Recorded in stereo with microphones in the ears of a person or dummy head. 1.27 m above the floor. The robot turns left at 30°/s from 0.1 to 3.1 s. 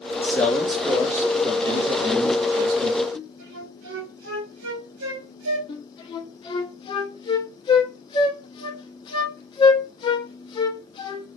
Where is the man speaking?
15° left, 2 m; by 3.0 s 70° right, 2 m.